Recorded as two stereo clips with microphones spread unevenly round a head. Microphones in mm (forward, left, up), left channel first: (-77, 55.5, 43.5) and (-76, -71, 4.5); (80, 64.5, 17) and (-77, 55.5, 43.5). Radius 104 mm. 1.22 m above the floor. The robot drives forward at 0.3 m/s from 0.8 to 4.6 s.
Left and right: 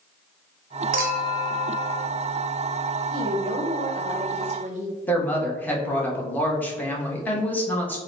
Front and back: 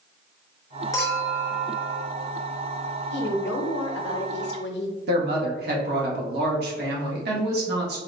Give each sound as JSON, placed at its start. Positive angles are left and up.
{"t": 0.9, "sound": "a clink", "azimuth_deg": -75, "distance_m": 0.6}
{"t": 3.1, "sound": "a woman speaking", "azimuth_deg": -20, "distance_m": 0.9}
{"t": 5.1, "sound": "a woman speaking", "azimuth_deg": 170, "distance_m": 1.3}